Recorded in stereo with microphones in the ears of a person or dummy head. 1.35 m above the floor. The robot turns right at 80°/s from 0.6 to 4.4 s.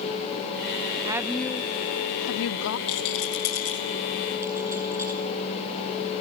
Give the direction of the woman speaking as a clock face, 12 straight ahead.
1 o'clock.